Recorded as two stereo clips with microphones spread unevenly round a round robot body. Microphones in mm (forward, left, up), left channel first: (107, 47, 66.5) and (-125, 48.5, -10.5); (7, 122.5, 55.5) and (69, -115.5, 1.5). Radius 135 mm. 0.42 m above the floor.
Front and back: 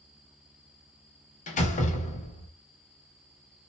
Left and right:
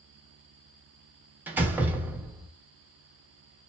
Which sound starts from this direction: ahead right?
A door slam, at 1.5 s.